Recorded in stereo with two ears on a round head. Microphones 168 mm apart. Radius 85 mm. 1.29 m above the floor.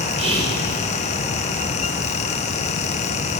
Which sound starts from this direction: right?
Whispering, at 0.2 s.